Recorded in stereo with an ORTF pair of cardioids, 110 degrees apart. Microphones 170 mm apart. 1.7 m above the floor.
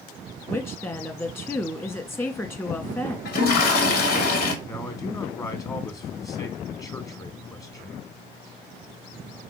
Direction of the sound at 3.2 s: 70° left.